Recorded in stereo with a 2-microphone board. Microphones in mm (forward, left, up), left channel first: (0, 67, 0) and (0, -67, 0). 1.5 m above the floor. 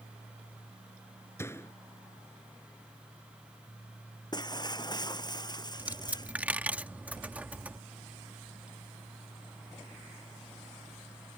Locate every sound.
1.4 s a door slam: 20° left (ahead or behind)
4.3 s breaking glass: 30° left (ahead or behind)
5.8 s a dropped coin: 10° right (ahead or behind)